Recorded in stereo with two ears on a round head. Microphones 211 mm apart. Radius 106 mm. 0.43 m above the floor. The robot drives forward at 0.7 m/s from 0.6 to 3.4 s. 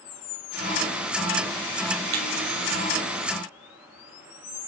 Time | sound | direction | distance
2.1 | breaking glass | 75° right (ahead or behind) | 2.5 m